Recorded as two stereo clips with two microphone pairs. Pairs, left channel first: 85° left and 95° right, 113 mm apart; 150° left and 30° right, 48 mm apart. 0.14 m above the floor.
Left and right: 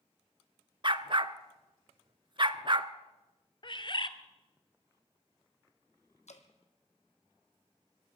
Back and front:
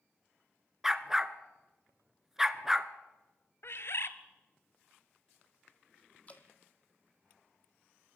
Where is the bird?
125° left, 0.7 m.